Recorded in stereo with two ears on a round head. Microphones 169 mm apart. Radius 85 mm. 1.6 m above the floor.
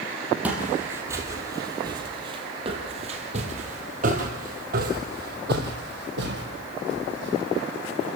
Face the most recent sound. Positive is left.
turn(degrees=-65)  # may be behind; listen again after turning